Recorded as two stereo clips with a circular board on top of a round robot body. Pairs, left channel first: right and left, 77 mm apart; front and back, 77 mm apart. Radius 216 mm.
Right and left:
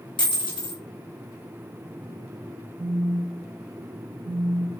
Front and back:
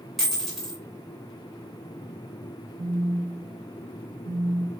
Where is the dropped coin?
95° right, 1.9 m.